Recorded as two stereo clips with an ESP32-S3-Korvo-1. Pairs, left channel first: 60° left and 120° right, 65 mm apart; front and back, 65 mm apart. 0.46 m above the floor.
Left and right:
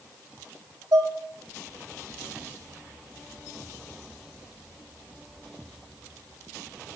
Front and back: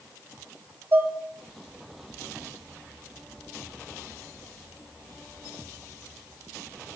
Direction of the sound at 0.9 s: 140° right.